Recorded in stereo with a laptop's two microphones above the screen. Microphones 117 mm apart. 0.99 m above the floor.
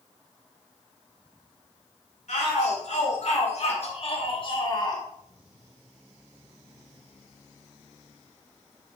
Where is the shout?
75° left (ahead or behind), 2.5 m; by 5.0 s 30° left (ahead or behind), 1.7 m.